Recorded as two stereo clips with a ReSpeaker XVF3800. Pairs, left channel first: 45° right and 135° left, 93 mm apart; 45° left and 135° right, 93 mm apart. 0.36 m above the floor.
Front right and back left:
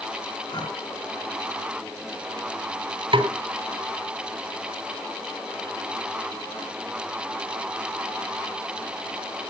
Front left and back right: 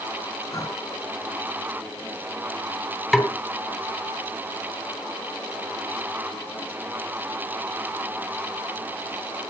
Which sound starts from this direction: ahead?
Breathing, at 0.5 s.